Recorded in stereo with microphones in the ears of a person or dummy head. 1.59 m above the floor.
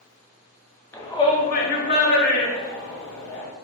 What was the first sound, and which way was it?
A shout, 10° left (ahead or behind).